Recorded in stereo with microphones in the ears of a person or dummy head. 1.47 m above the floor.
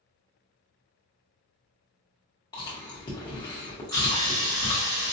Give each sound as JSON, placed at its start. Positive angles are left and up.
{"t": 2.5, "sound": "chewing", "side_deg": 25, "distance_m": 0.9}
{"t": 3.9, "sound": "sawing", "side_deg": -60, "distance_m": 1.7}